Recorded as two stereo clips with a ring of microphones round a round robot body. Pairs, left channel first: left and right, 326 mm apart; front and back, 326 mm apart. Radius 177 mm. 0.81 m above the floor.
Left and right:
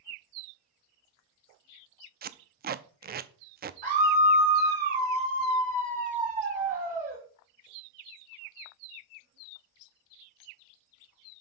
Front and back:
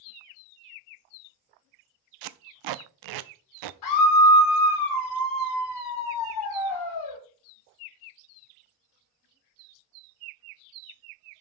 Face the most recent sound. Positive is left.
turn(degrees=-20)